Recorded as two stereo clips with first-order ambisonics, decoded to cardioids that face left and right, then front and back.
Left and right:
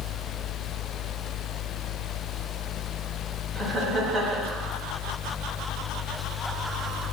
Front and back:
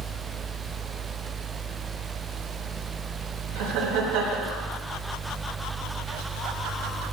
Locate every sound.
3.5 s laughter: 175° left, 5.5 m